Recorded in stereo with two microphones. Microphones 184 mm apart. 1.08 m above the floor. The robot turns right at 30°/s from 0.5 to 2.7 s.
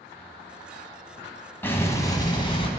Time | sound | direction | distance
1.6 | an explosion | 15° left | 1.1 m